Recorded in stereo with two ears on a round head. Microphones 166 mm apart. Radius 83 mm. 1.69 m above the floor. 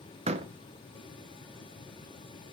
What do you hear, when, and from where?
0.3 s a door slam: 35° right (ahead or behind), 0.8 m